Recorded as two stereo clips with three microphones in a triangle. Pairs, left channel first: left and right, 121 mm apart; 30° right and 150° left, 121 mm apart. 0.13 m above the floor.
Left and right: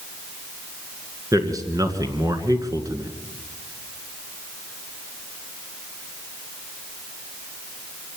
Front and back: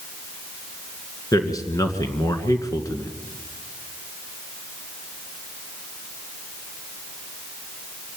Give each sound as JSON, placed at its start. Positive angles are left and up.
{"t": 1.3, "sound": "a man speaking", "azimuth_deg": -60, "distance_m": 2.0}